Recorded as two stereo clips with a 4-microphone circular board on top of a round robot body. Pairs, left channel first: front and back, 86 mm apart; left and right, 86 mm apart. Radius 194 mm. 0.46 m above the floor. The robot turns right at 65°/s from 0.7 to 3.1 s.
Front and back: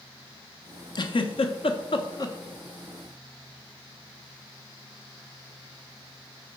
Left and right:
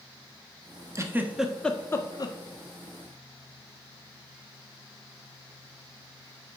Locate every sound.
0.9 s a giggle: 35° right, 0.8 m; by 2.4 s 55° left, 0.8 m